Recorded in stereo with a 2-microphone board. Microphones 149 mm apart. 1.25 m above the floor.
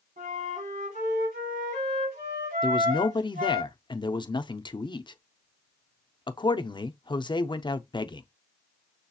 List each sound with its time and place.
0.2 s a flute: 70° right (ahead or behind), 4.5 m
2.6 s a man speaking: 30° left (ahead or behind), 0.5 m